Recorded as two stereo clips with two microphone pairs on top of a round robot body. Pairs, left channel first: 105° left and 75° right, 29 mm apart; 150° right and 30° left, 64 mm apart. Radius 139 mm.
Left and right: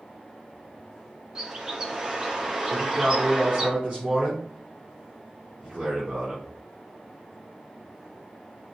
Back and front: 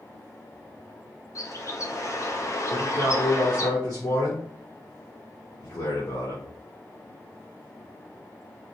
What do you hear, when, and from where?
1.4 s a bird: 140° right, 1.5 m
2.7 s a man speaking: 125° right, 3.5 m